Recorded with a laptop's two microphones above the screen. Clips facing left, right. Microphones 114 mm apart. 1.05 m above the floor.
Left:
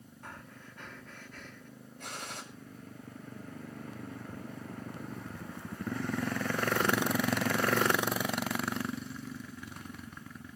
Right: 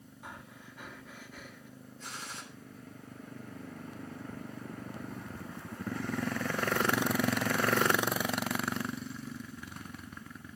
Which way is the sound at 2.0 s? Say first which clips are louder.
Left 2 dB; 65° left (ahead or behind).